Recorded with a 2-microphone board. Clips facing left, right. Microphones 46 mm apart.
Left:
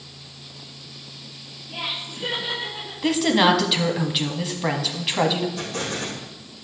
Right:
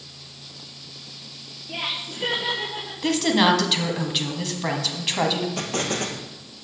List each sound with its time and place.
1.7 s laughter: 60° right (ahead or behind), 4 m; by 3.1 s 70° right (ahead or behind), 5.5 m
3.0 s a woman speaking: 5° left (ahead or behind), 1.3 m
5.6 s an explosion: 65° right (ahead or behind), 1.8 m